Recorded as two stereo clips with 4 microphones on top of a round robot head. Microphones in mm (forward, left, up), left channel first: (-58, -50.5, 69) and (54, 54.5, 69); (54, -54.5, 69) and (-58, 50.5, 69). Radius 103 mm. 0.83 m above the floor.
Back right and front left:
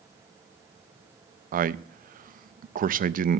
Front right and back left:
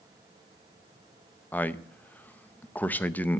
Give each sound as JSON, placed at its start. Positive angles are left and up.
{"t": 1.5, "sound": "a man speaking", "azimuth_deg": 35, "distance_m": 0.6}